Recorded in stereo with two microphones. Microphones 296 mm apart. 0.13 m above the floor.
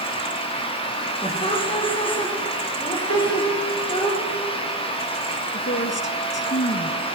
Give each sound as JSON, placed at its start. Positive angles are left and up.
{"t": 1.2, "sound": "laughter", "side_deg": 20, "distance_m": 6.0}
{"t": 3.1, "sound": "a piano", "side_deg": 65, "distance_m": 8.0}
{"t": 5.5, "sound": "a woman speaking", "side_deg": 40, "distance_m": 1.9}